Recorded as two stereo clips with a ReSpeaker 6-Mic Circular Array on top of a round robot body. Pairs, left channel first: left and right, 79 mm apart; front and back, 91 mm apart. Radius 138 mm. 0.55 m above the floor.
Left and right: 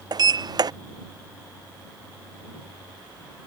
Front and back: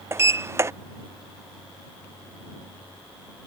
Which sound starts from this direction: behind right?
A sliding door, at 0.1 s.